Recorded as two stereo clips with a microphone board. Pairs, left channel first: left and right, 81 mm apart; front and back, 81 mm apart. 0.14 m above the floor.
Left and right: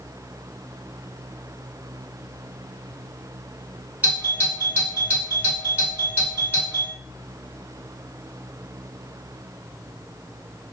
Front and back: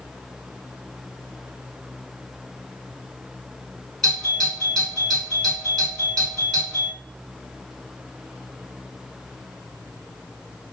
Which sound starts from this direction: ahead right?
A doorbell, at 4.0 s.